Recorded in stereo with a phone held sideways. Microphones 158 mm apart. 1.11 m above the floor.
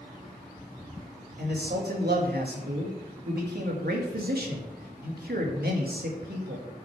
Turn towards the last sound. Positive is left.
turn(degrees=-75)  # may be behind; listen again after turning